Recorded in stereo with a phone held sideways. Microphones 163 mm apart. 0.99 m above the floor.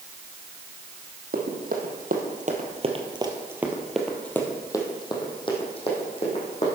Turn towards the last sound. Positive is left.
turn(degrees=40)  # may be behind; listen again after turning